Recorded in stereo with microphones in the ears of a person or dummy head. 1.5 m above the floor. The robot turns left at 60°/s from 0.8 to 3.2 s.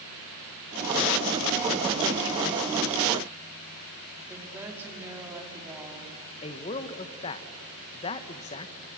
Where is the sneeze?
No sneeze in this recording.